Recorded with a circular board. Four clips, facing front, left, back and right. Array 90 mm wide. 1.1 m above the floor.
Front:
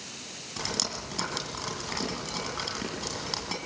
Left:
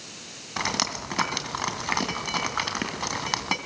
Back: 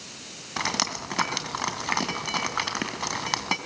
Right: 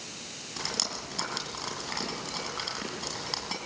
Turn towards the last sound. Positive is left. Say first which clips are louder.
# left 8 dB, back 6 dB
turn(degrees=135)